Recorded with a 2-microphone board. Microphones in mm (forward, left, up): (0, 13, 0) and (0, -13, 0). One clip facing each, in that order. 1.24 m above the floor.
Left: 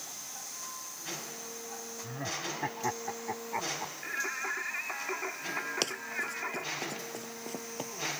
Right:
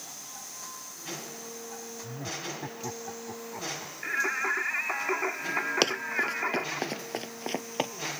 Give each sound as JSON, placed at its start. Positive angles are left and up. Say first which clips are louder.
{"t": 2.0, "sound": "laughter", "louder": "left 1 dB", "side_deg": 30}
{"t": 4.0, "sound": "singing", "louder": "right 7 dB", "side_deg": -20}
{"t": 5.8, "sound": "running footsteps", "louder": "right 7 dB", "side_deg": -30}